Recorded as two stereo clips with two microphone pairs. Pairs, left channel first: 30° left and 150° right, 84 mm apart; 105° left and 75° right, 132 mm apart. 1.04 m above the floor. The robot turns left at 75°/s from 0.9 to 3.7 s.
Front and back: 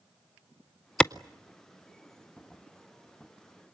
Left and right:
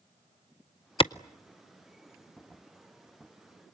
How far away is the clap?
About 0.5 m.